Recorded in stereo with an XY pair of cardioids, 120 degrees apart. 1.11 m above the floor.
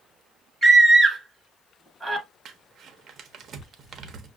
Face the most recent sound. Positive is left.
turn(degrees=-50)